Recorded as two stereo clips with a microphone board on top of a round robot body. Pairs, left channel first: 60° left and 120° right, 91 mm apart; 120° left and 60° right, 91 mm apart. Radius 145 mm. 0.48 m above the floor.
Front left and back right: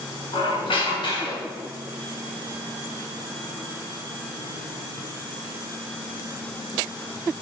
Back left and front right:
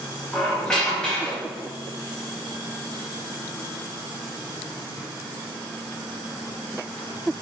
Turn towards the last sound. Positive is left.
turn(degrees=40)